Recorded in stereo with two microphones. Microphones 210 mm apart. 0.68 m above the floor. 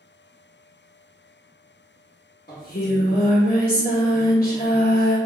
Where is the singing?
45° left (ahead or behind), 0.8 m.